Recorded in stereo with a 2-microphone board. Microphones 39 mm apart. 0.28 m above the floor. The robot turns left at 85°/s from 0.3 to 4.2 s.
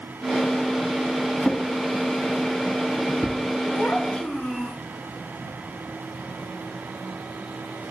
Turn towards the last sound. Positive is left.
turn(degrees=30)